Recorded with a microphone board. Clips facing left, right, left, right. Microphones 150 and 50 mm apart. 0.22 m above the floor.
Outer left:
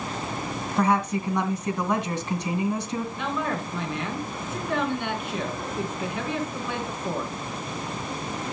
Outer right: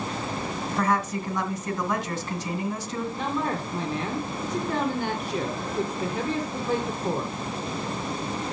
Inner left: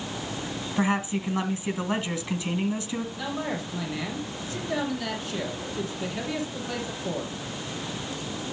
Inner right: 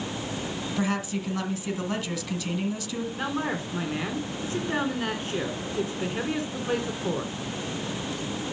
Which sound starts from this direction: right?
A man speaking, at 3.1 s.